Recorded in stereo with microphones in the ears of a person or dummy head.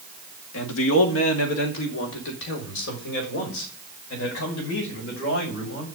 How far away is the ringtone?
No ringtone in this recording.